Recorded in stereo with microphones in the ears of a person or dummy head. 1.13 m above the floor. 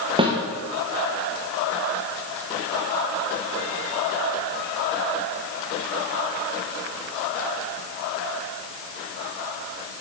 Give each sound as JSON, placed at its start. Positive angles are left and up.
{"t": 0.2, "sound": "a snare drum", "side_deg": -25, "distance_m": 1.0}